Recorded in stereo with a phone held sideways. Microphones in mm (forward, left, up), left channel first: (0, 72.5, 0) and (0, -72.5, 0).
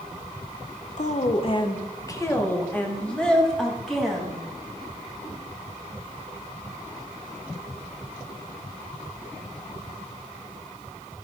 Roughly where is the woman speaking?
Left.